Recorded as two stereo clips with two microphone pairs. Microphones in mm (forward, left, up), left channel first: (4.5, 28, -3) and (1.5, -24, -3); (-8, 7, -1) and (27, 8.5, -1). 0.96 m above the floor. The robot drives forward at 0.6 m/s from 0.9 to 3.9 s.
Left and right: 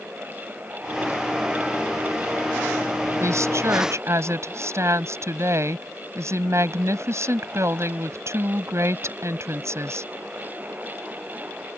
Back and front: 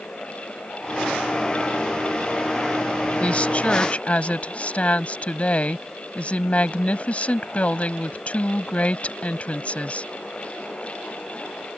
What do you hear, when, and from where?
3.2 s a woman speaking: 120° right; by 10.1 s 125° right